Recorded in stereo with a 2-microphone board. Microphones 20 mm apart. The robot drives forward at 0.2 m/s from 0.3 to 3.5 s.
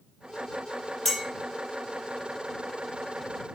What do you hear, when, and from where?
1.1 s a clink: 25° left (ahead or behind), 1.2 m